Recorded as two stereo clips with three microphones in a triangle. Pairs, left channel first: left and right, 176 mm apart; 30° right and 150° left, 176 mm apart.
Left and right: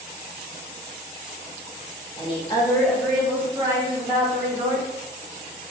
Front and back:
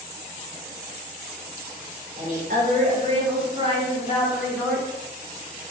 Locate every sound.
2.2 s a woman speaking: 135° left, 0.9 m; by 4.9 s 125° right, 1.3 m